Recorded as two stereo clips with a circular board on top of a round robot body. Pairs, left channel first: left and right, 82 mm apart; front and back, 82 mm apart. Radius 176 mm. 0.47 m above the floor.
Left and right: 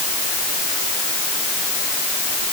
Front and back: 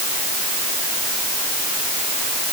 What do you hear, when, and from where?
Only background noise.